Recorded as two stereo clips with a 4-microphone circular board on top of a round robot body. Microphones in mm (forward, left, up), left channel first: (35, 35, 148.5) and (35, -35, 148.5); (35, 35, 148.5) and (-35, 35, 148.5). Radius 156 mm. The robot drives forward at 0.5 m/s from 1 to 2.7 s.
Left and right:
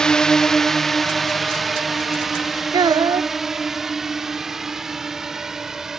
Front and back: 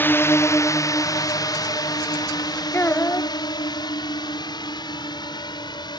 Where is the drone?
20° left; by 6.0 s 5° right.